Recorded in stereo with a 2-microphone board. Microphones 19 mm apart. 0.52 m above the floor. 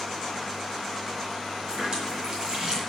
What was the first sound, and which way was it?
A running tap, 40° right (ahead or behind).